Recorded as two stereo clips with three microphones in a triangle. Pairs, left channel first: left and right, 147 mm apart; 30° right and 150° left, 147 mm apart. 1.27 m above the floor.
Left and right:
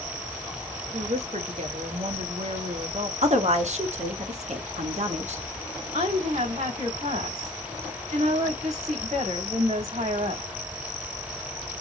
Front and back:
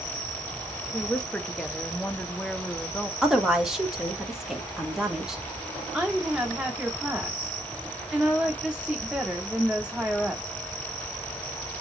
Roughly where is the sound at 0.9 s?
Behind right.